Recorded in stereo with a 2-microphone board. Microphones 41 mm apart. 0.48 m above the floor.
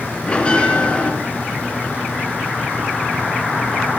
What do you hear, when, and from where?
0.3 s a bell: 30° left (ahead or behind), 2.5 m